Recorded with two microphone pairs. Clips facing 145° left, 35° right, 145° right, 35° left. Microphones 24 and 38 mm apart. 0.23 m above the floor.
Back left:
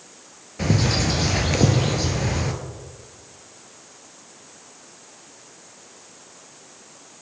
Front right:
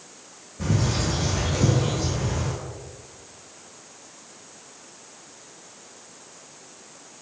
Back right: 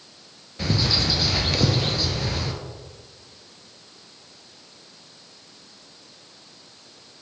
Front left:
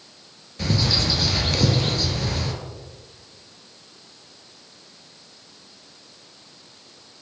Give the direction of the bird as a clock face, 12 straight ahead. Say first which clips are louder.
Back left 4 dB, front left 1 dB; 8 o'clock.